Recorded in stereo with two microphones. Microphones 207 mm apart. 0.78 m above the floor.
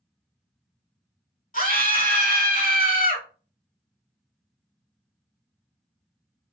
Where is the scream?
45° left (ahead or behind), 2 m.